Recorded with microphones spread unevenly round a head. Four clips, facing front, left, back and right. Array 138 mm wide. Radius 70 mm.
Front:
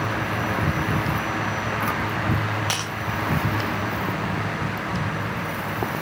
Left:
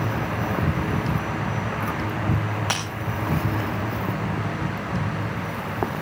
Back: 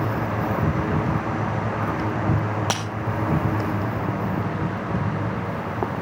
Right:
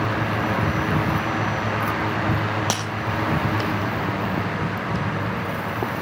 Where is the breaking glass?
135° right, 3.5 m.